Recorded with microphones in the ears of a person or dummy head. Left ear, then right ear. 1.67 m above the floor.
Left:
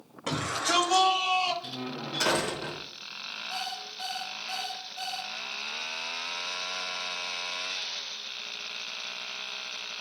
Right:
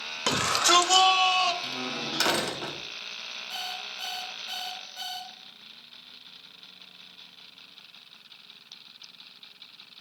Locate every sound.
0.3 s a shout: 75° right (ahead or behind), 0.7 m; by 1.5 s 60° right (ahead or behind), 1.9 m
1.6 s a door slam: 35° right (ahead or behind), 1.9 m
3.5 s an alarm clock: 65° right (ahead or behind), 2 m